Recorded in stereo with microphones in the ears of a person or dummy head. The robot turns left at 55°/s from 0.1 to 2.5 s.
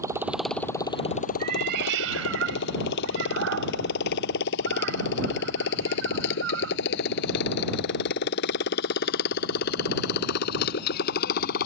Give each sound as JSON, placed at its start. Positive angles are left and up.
{"t": 0.0, "sound": "a motorcycle", "side_deg": -15}
{"t": 1.4, "sound": "a cat meowing", "side_deg": -40}